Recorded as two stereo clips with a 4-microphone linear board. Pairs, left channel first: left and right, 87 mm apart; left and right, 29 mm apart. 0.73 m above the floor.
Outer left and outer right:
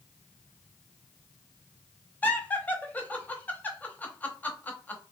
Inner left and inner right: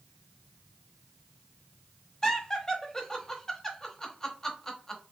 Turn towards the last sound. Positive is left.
turn(degrees=20)  # may be behind; listen again after turning